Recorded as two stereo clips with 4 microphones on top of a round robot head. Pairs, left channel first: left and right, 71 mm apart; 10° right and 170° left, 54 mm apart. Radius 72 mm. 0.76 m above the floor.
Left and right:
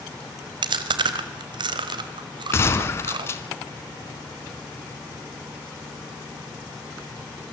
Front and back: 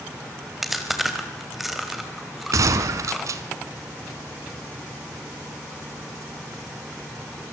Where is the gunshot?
145° left, 1.4 m.